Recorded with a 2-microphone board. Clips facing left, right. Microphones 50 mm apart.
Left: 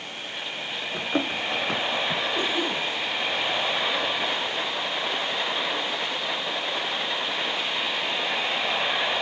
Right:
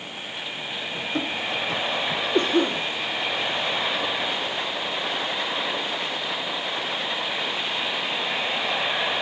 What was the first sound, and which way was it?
Running footsteps, 30° left (ahead or behind).